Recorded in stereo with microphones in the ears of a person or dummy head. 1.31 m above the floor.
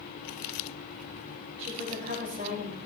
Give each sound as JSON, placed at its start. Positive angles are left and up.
{"t": 1.6, "sound": "a woman speaking", "side_deg": -40, "distance_m": 5.5}